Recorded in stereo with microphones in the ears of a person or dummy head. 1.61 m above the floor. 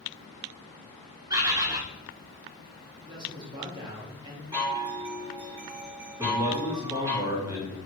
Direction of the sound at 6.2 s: 20° right (ahead or behind).